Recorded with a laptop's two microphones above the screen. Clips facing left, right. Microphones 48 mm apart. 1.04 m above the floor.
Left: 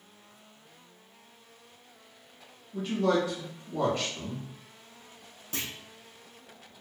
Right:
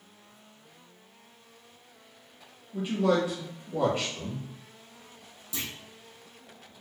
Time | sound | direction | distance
2.7 | a man speaking | 15° right (ahead or behind) | 1.3 m
5.5 | a clunk | 45° left (ahead or behind) | 0.6 m